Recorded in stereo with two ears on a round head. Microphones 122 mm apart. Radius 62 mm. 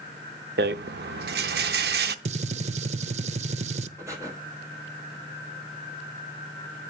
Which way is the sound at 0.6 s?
85° right.